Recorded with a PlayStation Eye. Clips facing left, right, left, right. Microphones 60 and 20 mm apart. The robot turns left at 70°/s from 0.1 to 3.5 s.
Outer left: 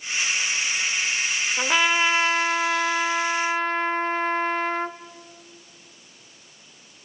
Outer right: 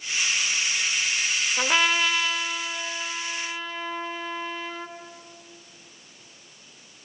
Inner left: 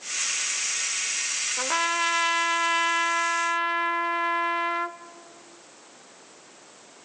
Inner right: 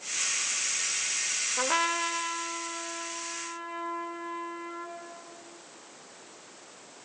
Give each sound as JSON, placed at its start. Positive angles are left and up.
{"t": 1.6, "sound": "a trumpet", "azimuth_deg": -170, "distance_m": 0.7}